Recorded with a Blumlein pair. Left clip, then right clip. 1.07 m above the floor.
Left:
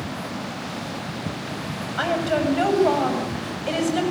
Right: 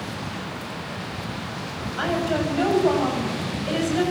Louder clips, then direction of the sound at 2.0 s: Left 2 dB; 10° left.